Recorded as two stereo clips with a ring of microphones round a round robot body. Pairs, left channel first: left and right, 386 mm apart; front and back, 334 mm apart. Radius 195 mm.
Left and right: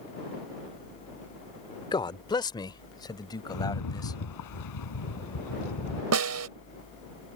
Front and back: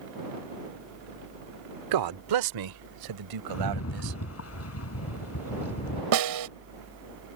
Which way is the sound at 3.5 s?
45° left.